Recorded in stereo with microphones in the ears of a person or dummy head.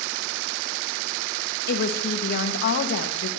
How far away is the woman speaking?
About 1.8 m.